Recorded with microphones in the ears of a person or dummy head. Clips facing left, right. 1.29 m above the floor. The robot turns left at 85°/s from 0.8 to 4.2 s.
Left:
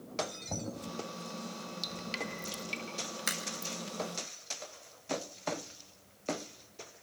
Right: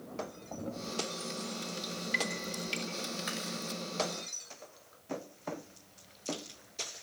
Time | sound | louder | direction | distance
0.5 | knocking | even | 35° left (ahead or behind) | 7 m
1.8 | dripping | right 3 dB | 65° left (ahead or behind) | 3 m
3.3 | a crack | right 3 dB | 80° left | 6 m